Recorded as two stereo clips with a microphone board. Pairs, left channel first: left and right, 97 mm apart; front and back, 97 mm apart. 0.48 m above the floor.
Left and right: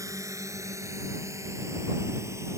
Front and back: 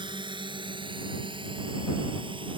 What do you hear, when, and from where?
0.0 s a drone: 145° right; by 2.6 s 150° right